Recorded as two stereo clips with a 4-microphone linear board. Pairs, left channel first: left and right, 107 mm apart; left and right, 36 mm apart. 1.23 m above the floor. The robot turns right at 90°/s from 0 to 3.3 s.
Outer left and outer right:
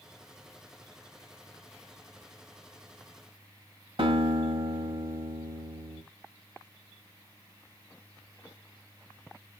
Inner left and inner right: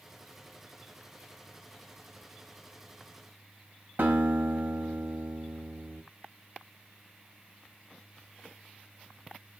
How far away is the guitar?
About 1.6 m.